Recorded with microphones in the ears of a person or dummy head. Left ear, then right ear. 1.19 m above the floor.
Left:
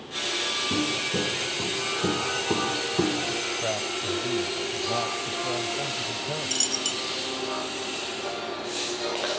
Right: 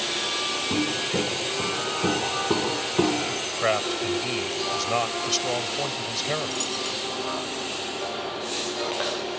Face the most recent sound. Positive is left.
turn(degrees=20)  # may be behind; listen again after turning